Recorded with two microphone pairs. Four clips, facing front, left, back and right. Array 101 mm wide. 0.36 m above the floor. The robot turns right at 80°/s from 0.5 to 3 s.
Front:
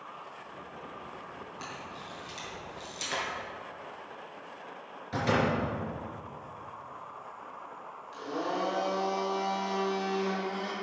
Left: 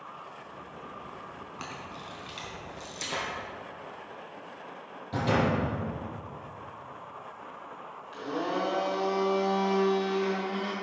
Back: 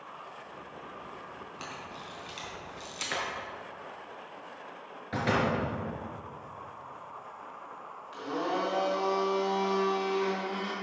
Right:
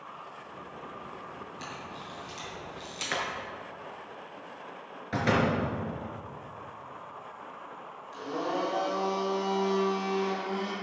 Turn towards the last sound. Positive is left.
turn(degrees=170)